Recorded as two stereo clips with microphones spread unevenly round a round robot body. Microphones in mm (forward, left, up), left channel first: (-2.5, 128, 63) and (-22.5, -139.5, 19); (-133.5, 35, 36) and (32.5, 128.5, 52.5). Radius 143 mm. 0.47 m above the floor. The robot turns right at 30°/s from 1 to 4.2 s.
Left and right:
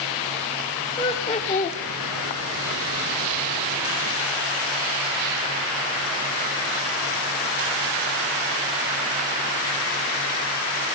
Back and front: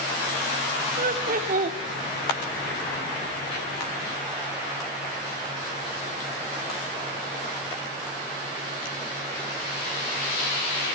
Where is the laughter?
10° left, 1.0 m; by 1.8 s 35° left, 1.0 m.